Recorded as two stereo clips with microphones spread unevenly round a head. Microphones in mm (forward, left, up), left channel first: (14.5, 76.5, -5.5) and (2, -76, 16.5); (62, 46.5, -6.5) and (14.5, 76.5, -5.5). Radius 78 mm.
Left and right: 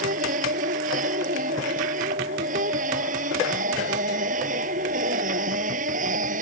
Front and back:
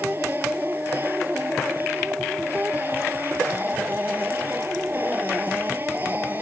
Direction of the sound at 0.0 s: 135° right.